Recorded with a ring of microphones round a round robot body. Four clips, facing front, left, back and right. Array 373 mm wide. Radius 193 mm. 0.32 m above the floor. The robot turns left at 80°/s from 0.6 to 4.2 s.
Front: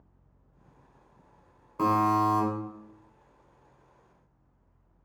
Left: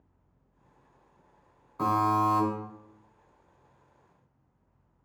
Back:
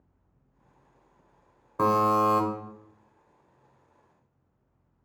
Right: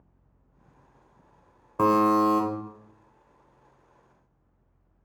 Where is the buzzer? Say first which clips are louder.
Right 5 dB, back 2 dB; 110° right, 0.6 m; by 2.4 s 160° right, 0.6 m.